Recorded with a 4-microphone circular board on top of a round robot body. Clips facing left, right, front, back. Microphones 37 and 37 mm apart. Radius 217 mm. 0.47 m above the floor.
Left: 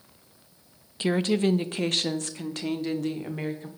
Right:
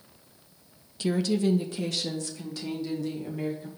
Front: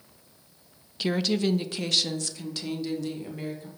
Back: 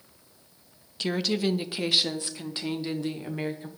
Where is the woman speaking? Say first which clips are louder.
Left 2 dB, front 1 dB; 85° left, 0.8 m; by 3.7 s 125° left, 1.8 m.